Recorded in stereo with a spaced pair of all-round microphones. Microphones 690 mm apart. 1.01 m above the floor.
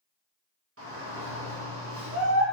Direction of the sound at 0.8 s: 20° right (ahead or behind).